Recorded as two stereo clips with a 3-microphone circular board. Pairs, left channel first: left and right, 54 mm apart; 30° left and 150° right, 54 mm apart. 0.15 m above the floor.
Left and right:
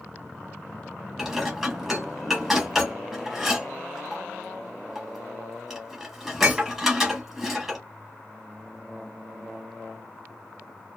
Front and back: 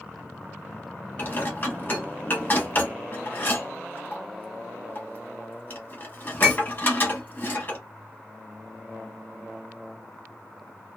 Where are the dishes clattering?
5° right, 1.2 m.